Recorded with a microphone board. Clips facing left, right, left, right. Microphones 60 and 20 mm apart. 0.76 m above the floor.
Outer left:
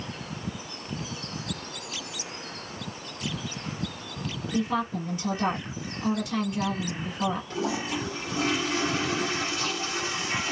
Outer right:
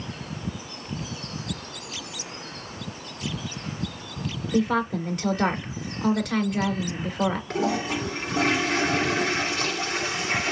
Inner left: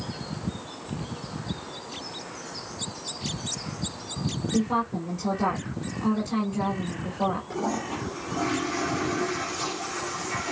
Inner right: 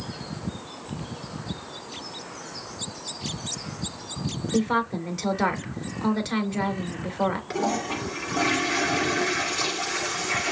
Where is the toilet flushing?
75° right (ahead or behind), 2.5 m.